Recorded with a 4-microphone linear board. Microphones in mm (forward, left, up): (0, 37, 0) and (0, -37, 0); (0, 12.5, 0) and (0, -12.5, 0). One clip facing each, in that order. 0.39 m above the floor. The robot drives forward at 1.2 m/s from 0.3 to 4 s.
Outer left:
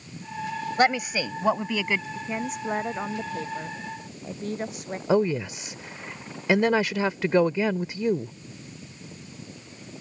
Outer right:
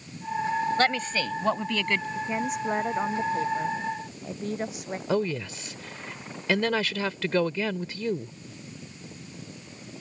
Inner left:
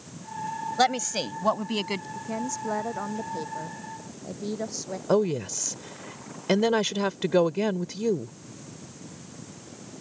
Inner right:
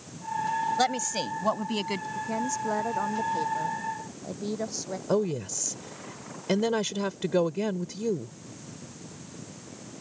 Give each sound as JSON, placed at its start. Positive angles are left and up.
{"t": 0.8, "sound": "a woman speaking", "side_deg": 15}
{"t": 2.1, "sound": "a woman speaking", "side_deg": 0}
{"t": 5.1, "sound": "a woman speaking", "side_deg": 20}